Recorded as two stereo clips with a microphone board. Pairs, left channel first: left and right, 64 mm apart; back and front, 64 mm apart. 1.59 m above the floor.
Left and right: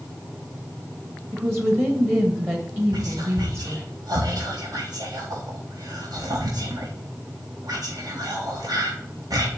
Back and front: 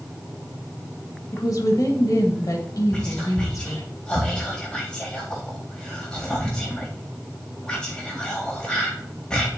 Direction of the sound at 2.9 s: 105° right.